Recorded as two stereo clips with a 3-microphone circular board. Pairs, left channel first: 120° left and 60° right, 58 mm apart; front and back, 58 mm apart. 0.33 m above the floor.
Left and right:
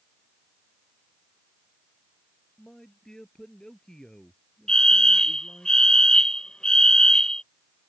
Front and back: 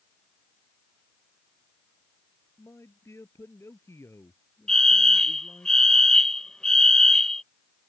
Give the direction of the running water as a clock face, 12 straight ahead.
I don't hear running water.